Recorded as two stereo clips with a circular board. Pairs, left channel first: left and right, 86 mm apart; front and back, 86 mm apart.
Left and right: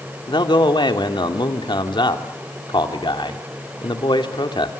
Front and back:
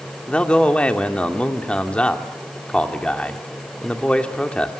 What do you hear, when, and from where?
0.3 s a man speaking: 75° left, 2.5 m